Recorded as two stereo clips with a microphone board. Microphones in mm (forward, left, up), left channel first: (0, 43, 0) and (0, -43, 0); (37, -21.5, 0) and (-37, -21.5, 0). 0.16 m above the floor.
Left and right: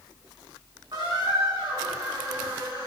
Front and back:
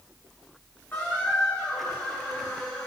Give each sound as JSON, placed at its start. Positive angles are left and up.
{"t": 0.9, "sound": "a squeak", "azimuth_deg": -65, "distance_m": 5.5}